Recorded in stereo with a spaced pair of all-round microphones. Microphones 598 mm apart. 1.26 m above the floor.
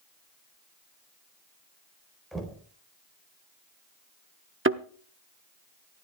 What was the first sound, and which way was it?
Knocking, centre (ahead or behind).